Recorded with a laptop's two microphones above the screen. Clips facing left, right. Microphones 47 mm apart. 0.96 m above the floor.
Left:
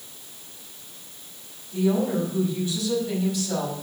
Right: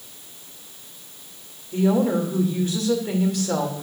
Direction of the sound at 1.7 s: 55° right (ahead or behind).